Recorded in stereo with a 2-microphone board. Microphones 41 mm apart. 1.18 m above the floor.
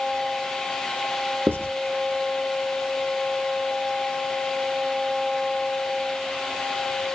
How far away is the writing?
About 1.0 m.